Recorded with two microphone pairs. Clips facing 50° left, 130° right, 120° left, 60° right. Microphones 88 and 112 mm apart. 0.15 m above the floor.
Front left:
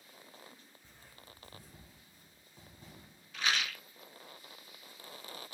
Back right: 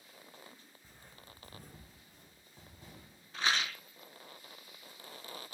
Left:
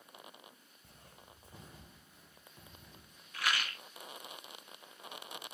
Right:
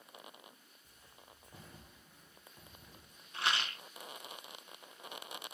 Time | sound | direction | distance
0.8 | footsteps | 145° left | 0.6 m
3.3 | a rattle | 105° right | 0.5 m